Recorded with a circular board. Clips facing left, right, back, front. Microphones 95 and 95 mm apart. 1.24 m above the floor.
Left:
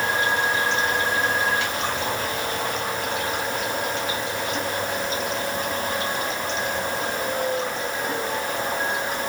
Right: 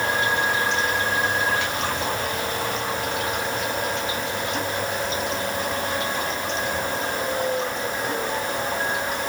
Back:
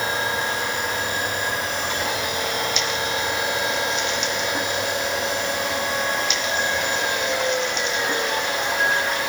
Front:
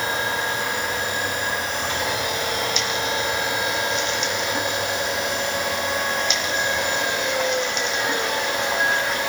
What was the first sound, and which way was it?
Only background noise.